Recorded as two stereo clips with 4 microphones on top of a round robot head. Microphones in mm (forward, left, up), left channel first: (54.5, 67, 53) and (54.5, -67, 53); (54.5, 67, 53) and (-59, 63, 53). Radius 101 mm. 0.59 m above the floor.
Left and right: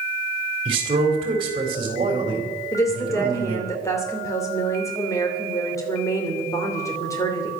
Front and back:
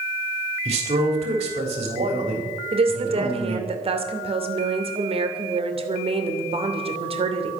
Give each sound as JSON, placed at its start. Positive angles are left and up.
{"t": 0.7, "sound": "a man speaking", "azimuth_deg": -145, "distance_m": 3.5}
{"t": 2.7, "sound": "a woman speaking", "azimuth_deg": 155, "distance_m": 2.5}